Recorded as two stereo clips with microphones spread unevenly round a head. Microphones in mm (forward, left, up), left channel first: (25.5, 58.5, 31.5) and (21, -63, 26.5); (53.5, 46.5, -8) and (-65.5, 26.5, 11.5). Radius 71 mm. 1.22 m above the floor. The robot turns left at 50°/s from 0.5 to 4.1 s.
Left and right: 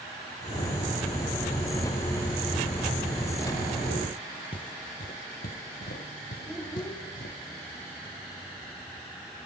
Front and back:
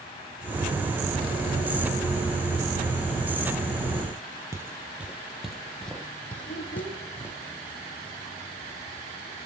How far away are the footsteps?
About 1.7 m.